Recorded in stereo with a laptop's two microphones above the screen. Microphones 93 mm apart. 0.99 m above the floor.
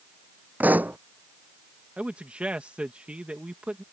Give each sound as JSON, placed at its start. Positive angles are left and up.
{"t": 0.6, "sound": "a pop", "side_deg": -20}
{"t": 2.0, "sound": "a man speaking", "side_deg": -15}